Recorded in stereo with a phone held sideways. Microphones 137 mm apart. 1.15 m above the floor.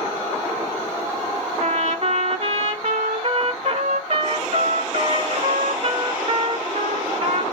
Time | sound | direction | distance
1.6 | a trumpet | 50° right (ahead or behind) | 1.2 m